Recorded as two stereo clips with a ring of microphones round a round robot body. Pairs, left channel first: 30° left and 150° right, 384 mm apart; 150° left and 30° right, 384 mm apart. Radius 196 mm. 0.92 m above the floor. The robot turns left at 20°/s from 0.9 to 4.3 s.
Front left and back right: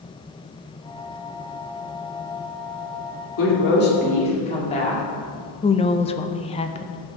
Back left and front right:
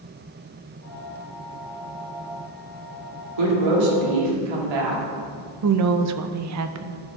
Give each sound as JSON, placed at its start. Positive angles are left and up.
{"t": 3.4, "sound": "a woman speaking", "azimuth_deg": -25, "distance_m": 2.0}
{"t": 5.6, "sound": "a woman speaking", "azimuth_deg": -35, "distance_m": 0.7}